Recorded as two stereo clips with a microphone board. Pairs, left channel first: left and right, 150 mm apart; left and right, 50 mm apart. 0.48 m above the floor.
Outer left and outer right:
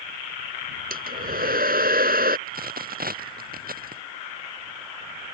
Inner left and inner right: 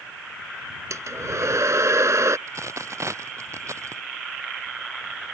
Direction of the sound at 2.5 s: 75° right (ahead or behind).